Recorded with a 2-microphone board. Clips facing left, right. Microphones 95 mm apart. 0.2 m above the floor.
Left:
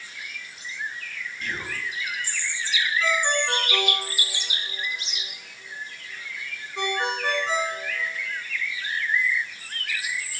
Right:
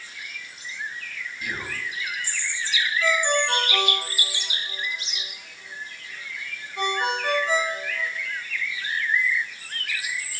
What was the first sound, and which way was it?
Whispering, 10° right (ahead or behind).